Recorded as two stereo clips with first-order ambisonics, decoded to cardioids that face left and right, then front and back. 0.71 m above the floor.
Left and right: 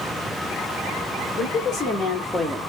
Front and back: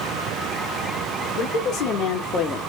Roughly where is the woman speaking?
Ahead left.